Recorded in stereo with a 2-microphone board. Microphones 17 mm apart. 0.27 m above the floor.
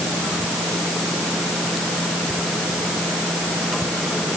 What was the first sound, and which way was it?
Only background noise.